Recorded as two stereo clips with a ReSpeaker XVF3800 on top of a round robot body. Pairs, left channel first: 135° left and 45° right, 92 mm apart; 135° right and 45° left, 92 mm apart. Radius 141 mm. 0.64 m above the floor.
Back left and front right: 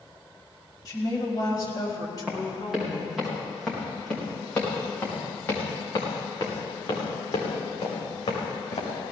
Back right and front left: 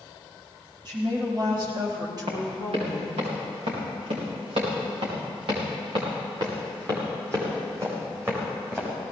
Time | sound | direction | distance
0.8 | a woman speaking | 85° left | 6 m
2.3 | running footsteps | 40° left | 7.5 m